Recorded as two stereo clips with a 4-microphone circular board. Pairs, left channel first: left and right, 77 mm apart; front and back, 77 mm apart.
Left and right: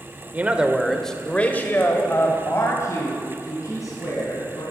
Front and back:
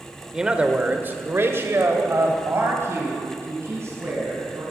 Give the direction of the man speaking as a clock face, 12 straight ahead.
4 o'clock.